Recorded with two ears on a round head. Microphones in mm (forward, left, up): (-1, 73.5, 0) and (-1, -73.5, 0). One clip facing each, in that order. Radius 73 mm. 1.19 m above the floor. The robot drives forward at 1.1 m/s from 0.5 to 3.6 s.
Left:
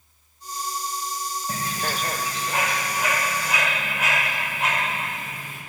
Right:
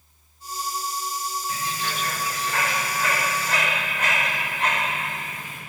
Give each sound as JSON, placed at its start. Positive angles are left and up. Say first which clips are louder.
{"t": 1.5, "sound": "a bird", "louder": "left 4 dB", "side_deg": 35, "distance_m": 0.6}